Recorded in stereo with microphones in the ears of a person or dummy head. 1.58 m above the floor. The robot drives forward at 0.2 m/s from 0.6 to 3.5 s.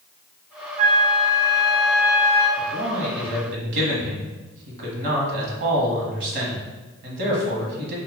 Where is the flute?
30° right (ahead or behind), 0.5 m; by 2.5 s 20° right (ahead or behind), 0.8 m.